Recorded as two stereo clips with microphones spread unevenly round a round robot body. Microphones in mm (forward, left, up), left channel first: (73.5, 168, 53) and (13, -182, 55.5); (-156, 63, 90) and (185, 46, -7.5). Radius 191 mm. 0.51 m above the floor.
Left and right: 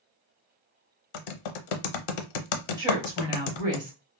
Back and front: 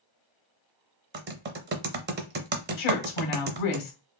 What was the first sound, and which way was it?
Typing on a keyboard, 65° left.